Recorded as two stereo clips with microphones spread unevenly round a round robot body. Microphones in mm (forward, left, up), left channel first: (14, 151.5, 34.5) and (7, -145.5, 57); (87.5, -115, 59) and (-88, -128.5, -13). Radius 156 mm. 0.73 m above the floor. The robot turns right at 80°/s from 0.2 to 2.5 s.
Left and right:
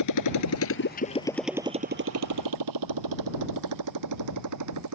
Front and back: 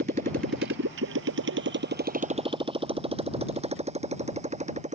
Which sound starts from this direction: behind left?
A motorcycle, at 0.0 s.